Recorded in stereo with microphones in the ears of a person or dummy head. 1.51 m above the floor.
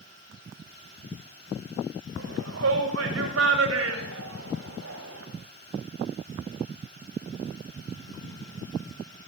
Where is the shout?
80° right, 6 m; by 5.2 s 85° right, 8 m.